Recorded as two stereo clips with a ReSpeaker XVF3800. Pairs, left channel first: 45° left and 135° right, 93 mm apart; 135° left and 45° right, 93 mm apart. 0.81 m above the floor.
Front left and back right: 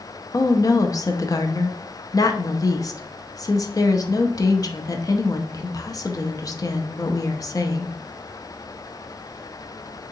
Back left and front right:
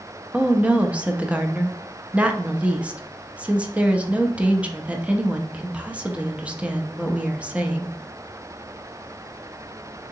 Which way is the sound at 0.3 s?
25° left.